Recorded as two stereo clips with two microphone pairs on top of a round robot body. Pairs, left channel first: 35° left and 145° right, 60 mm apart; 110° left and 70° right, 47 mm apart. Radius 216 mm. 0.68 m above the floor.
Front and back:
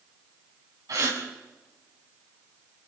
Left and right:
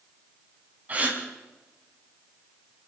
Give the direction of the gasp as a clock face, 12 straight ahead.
4 o'clock.